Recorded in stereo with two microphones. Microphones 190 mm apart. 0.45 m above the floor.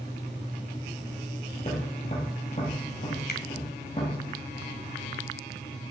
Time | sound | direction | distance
1.6 | tapping | 40° left (ahead or behind) | 4.5 m
3.3 | a finger snap | 60° left (ahead or behind) | 2 m